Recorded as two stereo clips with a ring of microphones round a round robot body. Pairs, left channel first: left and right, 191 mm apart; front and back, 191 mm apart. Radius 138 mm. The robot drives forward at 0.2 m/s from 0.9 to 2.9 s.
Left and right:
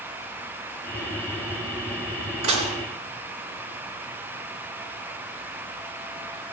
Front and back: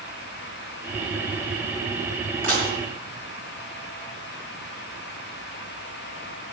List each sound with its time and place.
2.4 s dishes clattering: 115° right, 4 m